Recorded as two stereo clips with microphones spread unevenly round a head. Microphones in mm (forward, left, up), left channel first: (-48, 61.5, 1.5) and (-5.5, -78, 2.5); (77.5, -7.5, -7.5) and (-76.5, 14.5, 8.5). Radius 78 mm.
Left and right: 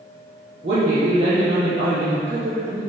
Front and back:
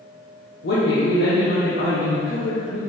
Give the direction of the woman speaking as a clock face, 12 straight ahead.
1 o'clock.